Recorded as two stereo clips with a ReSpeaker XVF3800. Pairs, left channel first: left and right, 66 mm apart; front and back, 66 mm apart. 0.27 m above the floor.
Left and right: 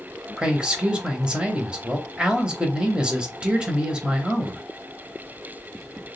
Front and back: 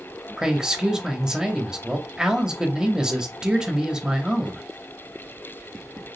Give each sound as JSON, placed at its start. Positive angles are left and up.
{"t": 0.4, "sound": "a man speaking", "azimuth_deg": -125, "distance_m": 0.9}